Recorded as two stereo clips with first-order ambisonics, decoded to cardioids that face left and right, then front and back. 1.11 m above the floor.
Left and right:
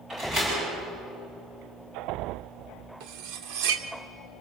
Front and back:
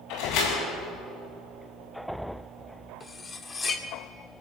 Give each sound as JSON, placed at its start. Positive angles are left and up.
{"t": 0.1, "sound": "a door slam", "azimuth_deg": -25, "distance_m": 8.0}
{"t": 3.0, "sound": "cutlery clinking", "azimuth_deg": -70, "distance_m": 1.4}